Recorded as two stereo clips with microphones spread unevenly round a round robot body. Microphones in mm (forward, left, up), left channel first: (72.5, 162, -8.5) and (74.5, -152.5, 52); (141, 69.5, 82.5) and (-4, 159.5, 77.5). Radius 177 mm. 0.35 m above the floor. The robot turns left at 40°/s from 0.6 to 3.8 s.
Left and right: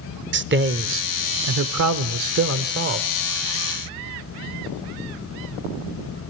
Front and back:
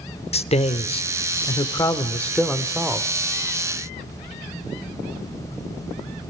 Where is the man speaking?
45° right, 1.0 m; by 3.1 s 140° right, 1.0 m.